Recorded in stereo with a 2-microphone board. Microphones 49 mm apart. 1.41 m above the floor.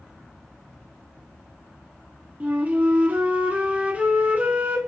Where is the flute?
30° right (ahead or behind), 1.5 m.